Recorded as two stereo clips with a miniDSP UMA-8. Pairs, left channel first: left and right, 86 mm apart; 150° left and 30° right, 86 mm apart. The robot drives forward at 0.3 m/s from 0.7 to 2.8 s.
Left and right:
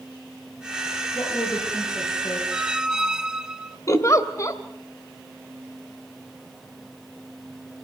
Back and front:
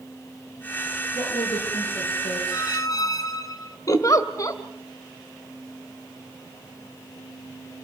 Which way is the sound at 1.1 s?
135° left.